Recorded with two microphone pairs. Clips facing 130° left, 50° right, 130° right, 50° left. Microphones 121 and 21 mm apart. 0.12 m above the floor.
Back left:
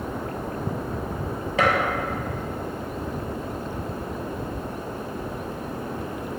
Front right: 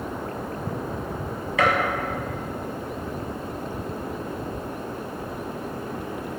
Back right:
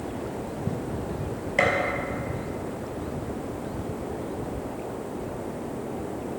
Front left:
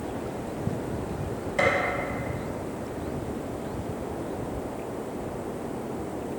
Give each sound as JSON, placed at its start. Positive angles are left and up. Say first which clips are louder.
{"t": 1.6, "sound": "a gunshot", "louder": "even, back right 1 dB", "azimuth_deg": 180, "distance_m": 2.0}